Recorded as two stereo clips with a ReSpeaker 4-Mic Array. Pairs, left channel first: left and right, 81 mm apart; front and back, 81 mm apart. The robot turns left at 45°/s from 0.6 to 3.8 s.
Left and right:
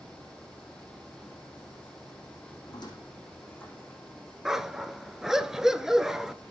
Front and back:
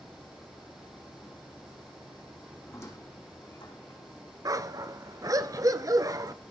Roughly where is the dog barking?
Behind.